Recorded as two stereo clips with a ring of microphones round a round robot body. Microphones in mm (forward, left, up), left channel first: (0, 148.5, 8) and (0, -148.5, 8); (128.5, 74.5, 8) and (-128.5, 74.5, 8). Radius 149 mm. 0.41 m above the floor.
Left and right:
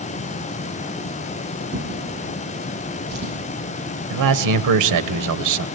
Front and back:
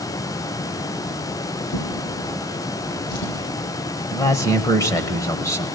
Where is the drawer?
35° right, 7.5 m.